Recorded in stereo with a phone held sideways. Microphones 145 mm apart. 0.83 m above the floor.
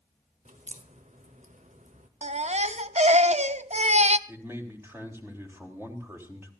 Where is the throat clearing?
No throat clearing in this recording.